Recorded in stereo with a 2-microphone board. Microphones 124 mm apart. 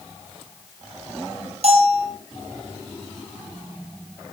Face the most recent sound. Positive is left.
turn(degrees=-55)  # may be behind; listen again after turning